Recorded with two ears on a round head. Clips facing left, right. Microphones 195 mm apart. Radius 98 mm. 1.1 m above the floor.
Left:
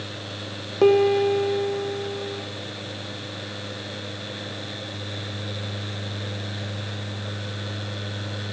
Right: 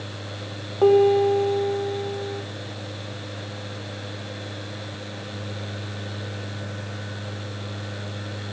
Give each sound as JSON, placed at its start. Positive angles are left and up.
{"t": 0.8, "sound": "a piano", "side_deg": 35, "distance_m": 0.9}